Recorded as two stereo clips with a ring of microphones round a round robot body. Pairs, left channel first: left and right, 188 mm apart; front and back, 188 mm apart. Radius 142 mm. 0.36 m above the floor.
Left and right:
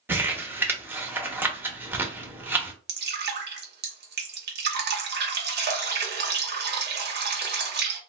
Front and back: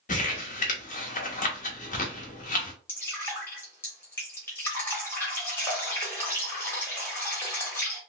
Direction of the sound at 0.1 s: 15° right.